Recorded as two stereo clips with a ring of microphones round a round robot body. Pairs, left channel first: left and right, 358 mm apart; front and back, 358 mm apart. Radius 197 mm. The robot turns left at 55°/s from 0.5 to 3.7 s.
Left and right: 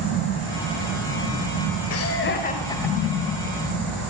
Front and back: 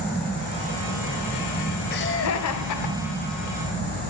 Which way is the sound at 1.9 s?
60° left.